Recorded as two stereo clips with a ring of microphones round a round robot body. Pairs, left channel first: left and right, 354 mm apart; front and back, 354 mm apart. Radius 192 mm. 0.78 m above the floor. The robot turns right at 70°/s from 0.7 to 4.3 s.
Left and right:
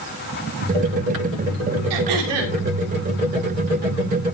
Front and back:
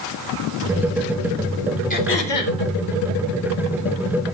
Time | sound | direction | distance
1.9 | throat clearing | 70° right | 3.5 m